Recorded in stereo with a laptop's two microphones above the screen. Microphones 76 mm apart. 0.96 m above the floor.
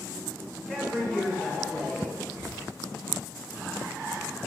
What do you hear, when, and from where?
0.7 s a woman speaking: 15° left (ahead or behind), 0.7 m
2.3 s whispering: 65° left (ahead or behind), 0.8 m